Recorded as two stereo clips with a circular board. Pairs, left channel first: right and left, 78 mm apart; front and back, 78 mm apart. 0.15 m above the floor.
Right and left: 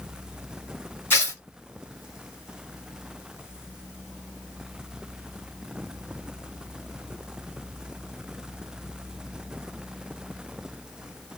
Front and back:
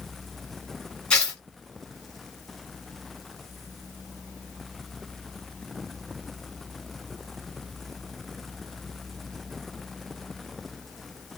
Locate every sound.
1.1 s tearing paper: 65° right, 1.8 m